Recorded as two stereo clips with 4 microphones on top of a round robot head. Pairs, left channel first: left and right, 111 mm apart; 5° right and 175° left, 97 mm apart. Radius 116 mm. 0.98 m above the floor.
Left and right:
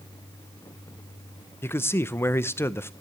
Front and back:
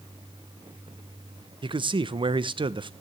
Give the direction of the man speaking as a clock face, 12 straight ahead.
7 o'clock.